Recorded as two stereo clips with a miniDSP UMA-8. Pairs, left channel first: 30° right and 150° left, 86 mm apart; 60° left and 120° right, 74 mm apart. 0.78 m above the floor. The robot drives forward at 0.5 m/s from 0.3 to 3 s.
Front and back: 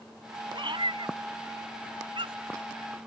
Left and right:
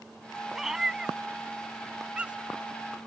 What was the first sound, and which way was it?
A cat meowing, 155° left.